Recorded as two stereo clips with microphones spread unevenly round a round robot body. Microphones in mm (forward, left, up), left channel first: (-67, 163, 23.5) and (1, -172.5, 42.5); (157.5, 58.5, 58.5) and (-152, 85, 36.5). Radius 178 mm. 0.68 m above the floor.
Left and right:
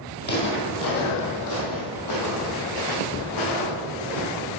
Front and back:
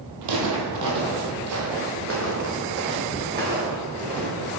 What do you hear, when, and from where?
0.2 s footsteps: 165° left, 1.4 m; by 4.6 s 105° left, 3 m